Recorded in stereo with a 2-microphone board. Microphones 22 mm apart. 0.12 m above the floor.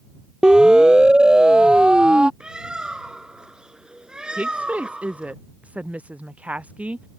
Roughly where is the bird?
Right.